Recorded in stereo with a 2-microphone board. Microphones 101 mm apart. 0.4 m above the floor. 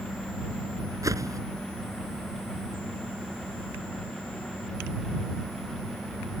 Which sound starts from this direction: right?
A whoosh, at 1.0 s.